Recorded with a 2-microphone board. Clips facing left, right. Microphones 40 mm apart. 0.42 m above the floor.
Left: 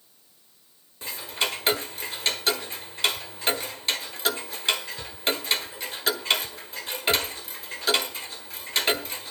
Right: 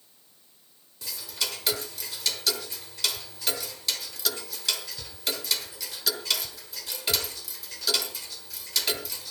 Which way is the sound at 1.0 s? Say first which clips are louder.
Left 5 dB; 40° left (ahead or behind).